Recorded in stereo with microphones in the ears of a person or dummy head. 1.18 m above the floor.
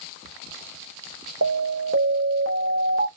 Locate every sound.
1.4 s an alarm: 70° right (ahead or behind), 1.7 m